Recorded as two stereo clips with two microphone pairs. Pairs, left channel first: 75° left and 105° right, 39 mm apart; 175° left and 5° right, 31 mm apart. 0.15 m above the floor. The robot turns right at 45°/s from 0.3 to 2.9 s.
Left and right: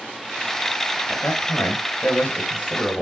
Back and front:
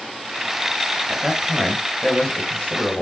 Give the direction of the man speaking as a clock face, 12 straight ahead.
10 o'clock.